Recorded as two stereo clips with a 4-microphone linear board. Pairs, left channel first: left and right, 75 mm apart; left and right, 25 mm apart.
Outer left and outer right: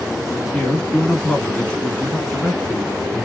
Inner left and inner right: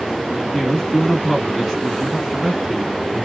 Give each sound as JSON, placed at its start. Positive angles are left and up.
{"t": 0.5, "sound": "a man speaking", "side_deg": 15, "distance_m": 1.1}